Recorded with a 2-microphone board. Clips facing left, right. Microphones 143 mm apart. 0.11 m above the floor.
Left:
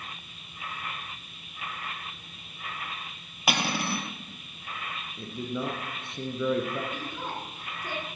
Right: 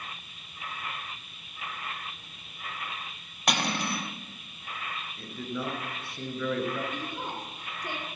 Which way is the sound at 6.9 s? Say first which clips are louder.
Even; 20° right (ahead or behind).